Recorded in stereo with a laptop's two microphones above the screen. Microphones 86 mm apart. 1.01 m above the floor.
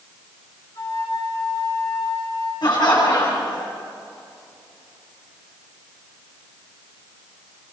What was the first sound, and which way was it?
A flute, 45° left (ahead or behind).